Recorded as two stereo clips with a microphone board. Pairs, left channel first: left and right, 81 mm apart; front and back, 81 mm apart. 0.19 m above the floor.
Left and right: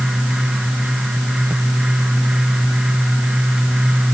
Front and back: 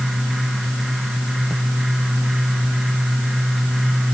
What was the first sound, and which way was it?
Only background noise.